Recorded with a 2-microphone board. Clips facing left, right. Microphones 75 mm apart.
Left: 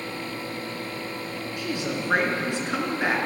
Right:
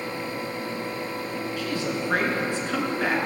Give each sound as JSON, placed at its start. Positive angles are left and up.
{"t": 1.6, "sound": "a woman speaking", "side_deg": 20, "distance_m": 3.0}